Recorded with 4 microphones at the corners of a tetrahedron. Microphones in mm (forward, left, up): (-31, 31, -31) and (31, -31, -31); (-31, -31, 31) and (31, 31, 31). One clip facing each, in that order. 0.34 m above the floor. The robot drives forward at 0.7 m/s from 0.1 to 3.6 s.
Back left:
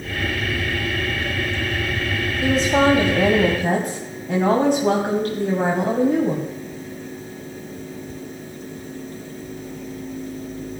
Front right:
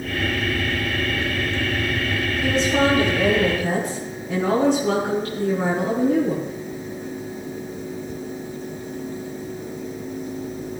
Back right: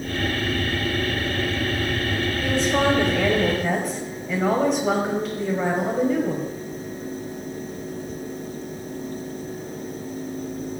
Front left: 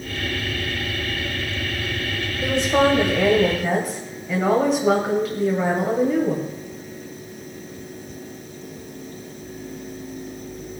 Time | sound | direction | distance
2.4 | a woman speaking | 100° left | 1.4 m